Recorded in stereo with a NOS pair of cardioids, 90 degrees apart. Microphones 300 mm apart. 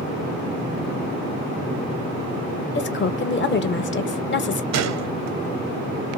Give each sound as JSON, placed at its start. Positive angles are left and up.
{"t": 2.8, "sound": "a woman speaking", "azimuth_deg": 40, "distance_m": 0.7}
{"t": 4.7, "sound": "a gunshot", "azimuth_deg": -65, "distance_m": 0.6}